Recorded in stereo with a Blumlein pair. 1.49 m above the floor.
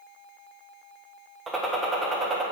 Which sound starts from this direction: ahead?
A gunshot, at 1.5 s.